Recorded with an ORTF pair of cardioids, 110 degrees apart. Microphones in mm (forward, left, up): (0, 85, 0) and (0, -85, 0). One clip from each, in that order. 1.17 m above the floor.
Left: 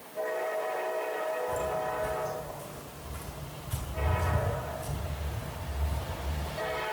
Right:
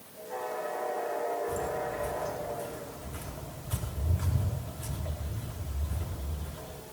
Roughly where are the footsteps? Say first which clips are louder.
Left 2 dB; ahead.